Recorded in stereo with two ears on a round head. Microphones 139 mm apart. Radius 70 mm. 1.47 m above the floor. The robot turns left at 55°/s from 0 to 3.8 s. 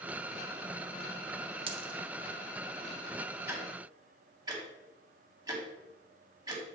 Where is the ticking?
15° right (ahead or behind), 1.6 m; by 6.7 s 25° right (ahead or behind), 1.6 m.